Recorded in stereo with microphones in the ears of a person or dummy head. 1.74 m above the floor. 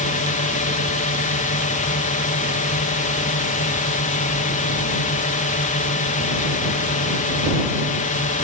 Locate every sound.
0.0 s a drone: 35° left (ahead or behind)